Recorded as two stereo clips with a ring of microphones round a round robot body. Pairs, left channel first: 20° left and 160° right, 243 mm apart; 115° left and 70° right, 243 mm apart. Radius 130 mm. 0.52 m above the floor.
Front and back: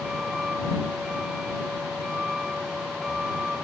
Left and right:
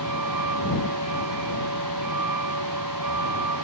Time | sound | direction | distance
0.0 | a vehicle | 70° right | ?